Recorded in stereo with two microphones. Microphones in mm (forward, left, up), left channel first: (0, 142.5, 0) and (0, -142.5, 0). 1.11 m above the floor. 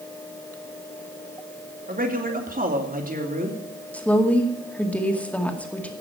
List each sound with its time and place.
1.9 s a man speaking: 30° right (ahead or behind), 2.5 m
3.9 s a woman speaking: 5° left (ahead or behind), 2.0 m